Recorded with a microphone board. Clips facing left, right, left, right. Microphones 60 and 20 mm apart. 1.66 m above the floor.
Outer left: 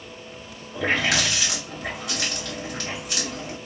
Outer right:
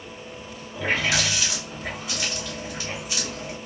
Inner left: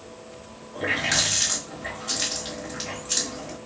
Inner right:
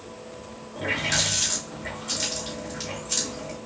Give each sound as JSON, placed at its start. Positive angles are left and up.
{"t": 0.8, "sound": "a running tap", "side_deg": 70, "distance_m": 2.5}